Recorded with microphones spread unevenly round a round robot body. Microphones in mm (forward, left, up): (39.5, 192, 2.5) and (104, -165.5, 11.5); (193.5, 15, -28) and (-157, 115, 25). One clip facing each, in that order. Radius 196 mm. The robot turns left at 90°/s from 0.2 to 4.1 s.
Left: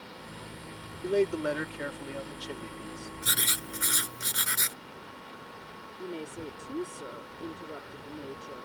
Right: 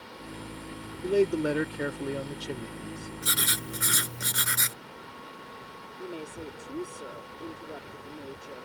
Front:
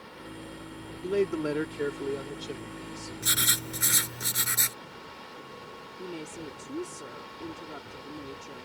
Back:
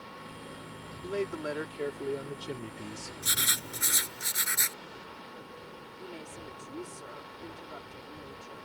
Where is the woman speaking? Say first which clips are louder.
Left 1 dB, front 7 dB; 20° left.